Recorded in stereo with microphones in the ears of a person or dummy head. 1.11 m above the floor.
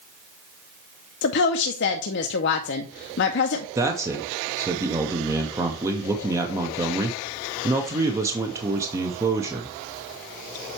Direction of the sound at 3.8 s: 20° right (ahead or behind).